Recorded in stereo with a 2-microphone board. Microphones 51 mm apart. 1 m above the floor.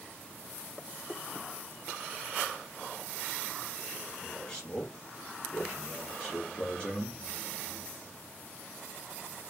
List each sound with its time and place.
4.2 s a man speaking: 25° left (ahead or behind), 2 m; by 7.2 s 15° left (ahead or behind), 0.7 m